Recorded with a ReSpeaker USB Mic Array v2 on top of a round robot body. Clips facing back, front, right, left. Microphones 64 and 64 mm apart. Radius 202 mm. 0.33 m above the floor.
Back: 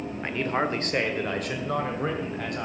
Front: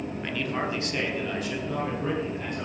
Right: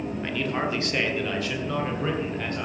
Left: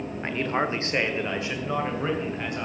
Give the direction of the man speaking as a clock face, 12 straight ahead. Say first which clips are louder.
Back 4 dB, left 3 dB; 8 o'clock.